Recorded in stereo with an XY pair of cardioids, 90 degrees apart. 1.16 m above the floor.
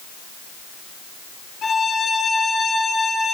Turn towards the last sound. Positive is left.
turn(degrees=60)